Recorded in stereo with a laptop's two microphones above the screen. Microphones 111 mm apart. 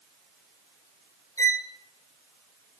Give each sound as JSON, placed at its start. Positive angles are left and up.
{"t": 1.4, "sound": "a violin", "side_deg": 30, "distance_m": 0.8}